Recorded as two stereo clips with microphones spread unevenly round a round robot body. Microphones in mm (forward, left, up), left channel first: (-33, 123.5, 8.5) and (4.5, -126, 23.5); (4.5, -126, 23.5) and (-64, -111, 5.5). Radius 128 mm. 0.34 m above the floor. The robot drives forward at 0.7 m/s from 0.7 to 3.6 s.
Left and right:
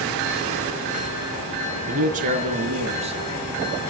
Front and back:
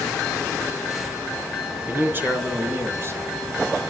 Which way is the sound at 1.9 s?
135° right.